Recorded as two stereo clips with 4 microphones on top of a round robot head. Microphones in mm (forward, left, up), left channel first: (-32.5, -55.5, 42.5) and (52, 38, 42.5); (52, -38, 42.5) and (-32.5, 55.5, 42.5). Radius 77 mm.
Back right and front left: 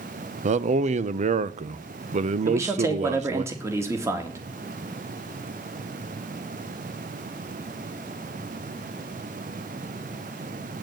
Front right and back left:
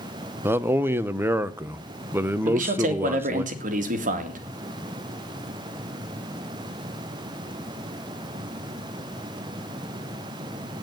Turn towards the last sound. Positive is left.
turn(degrees=120)